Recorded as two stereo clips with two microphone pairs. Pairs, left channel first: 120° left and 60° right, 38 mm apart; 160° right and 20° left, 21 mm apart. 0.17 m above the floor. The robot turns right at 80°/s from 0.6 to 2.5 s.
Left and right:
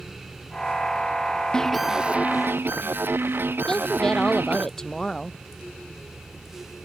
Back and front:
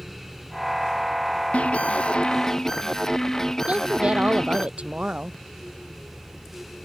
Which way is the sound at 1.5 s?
165° right.